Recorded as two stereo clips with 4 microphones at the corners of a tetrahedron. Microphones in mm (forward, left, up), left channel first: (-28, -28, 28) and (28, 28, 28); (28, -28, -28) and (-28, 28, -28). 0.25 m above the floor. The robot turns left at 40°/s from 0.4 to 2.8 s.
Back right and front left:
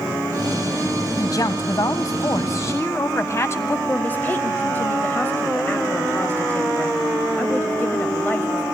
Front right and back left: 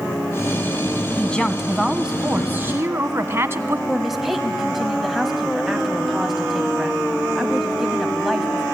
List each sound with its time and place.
1.2 s a woman speaking: 115° right, 1.5 m; by 3.8 s straight behind, 1.5 m
3.9 s a woman speaking: 145° right, 1.3 m